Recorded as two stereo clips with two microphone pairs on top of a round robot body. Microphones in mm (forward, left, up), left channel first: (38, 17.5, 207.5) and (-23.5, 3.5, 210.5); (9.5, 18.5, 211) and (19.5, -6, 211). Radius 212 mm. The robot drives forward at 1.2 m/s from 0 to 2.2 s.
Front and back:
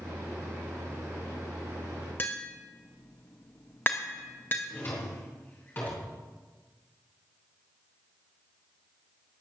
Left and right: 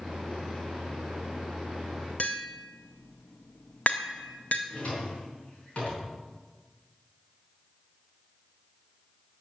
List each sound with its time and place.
2.2 s tapping: 75° left, 0.5 m
4.7 s a drawer: 70° left, 5 m